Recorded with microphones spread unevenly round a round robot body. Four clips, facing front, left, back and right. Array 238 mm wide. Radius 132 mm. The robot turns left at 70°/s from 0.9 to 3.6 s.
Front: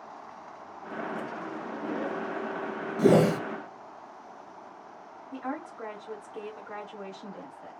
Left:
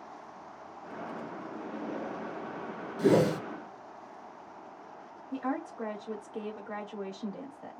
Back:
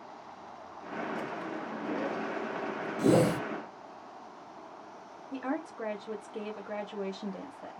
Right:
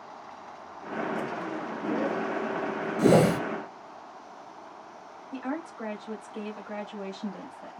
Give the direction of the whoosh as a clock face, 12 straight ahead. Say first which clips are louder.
Right 4 dB, front 4 dB; 1 o'clock.